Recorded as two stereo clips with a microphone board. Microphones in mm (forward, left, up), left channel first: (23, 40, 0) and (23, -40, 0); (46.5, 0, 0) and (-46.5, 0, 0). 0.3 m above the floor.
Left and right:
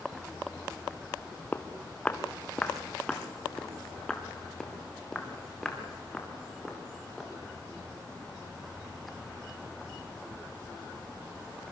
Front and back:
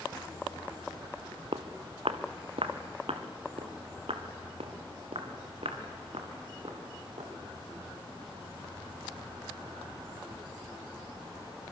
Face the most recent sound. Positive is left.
turn(degrees=175)